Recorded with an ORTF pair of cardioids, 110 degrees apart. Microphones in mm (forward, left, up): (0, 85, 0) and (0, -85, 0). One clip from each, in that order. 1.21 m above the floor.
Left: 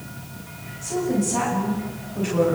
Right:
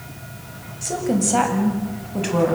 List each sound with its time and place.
0.8 s a woman speaking: 60° right, 7.5 m